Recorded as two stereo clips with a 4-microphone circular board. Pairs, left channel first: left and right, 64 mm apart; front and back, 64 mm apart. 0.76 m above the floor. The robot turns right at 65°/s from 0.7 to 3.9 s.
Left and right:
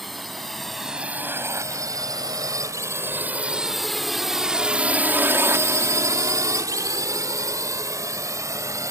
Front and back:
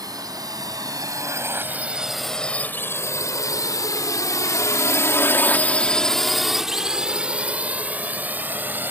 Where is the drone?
Straight behind; by 8.9 s 125° right.